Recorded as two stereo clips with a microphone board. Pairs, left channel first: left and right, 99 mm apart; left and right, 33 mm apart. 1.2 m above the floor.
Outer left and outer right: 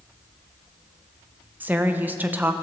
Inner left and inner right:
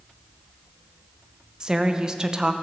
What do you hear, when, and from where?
1.6 s a woman speaking: 20° right (ahead or behind), 1.0 m